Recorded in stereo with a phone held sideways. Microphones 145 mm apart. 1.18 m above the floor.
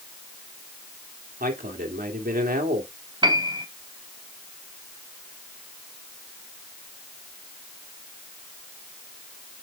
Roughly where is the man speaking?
Right.